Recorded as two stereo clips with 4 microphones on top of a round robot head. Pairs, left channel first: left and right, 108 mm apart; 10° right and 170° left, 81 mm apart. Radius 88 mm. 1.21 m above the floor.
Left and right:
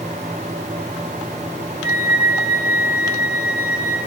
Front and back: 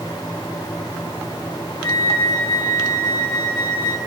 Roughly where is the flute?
Ahead right.